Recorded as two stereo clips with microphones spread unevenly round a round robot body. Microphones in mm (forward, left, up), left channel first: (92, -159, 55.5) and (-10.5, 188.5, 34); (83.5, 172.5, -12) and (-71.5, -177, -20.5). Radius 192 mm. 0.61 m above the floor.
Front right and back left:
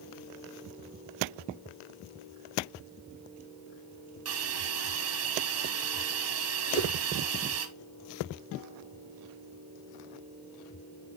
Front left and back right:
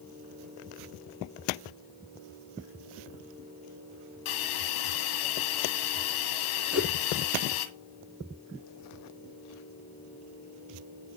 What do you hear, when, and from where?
4.2 s a hiss: 55° left, 1.7 m
6.7 s a whoosh: 25° right, 7.5 m